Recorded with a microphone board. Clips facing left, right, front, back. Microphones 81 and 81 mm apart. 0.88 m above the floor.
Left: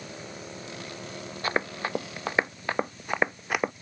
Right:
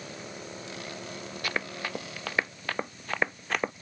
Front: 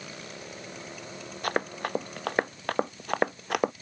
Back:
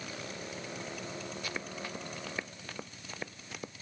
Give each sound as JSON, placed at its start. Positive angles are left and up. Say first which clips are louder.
{"t": 1.4, "sound": "running footsteps", "louder": "left 5 dB, front 10 dB", "azimuth_deg": 30}